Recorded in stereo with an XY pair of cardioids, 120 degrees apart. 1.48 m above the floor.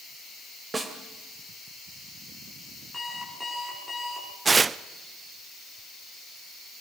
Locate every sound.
0.7 s a snare drum: 20° right, 3 m
2.9 s an alarm clock: 10° left, 7.5 m
4.5 s tearing paper: 25° right, 0.6 m